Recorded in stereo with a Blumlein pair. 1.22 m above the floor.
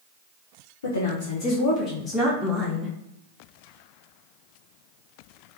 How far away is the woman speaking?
About 0.9 m.